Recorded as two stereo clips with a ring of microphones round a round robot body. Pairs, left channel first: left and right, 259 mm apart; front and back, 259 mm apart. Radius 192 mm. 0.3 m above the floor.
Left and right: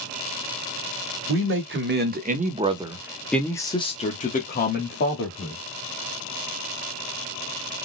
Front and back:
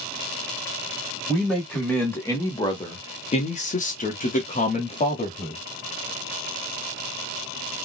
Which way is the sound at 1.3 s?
90° right.